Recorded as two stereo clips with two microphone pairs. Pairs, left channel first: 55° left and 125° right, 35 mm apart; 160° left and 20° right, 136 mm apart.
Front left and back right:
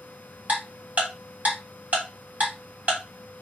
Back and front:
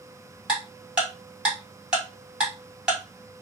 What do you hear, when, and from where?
0.5 s ticking: 100° right, 1.8 m